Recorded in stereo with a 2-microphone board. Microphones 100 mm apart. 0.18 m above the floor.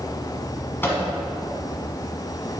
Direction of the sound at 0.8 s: 20° left (ahead or behind).